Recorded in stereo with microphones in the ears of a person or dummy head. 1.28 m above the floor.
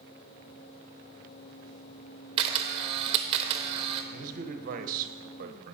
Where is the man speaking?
50° right (ahead or behind), 0.8 m.